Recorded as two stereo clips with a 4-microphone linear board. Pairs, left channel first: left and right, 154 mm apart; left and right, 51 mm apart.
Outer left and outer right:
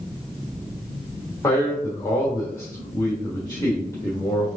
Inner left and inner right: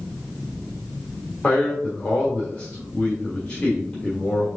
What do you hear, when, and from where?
1.4 s a man speaking: 20° left (ahead or behind), 1.4 m